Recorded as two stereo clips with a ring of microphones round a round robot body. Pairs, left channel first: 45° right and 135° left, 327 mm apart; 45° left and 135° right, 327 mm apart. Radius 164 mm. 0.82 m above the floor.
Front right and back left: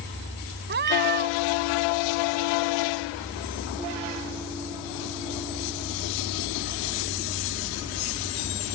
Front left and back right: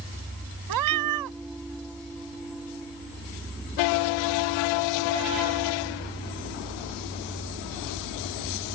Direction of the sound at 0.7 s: 165° right.